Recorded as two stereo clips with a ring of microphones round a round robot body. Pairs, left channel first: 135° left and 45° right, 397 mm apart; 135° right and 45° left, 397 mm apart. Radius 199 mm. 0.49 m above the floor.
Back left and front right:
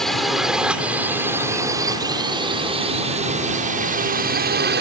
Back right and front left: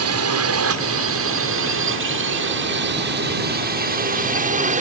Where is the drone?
45° left; by 4.8 s 10° right.